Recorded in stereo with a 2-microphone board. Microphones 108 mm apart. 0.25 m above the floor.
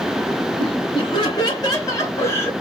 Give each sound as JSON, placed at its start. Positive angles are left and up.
{"t": 0.6, "sound": "laughter", "side_deg": 50, "distance_m": 2.0}